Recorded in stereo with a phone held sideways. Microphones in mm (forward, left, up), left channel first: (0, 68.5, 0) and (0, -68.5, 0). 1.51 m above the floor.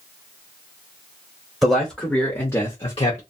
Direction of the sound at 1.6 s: 5° right (ahead or behind).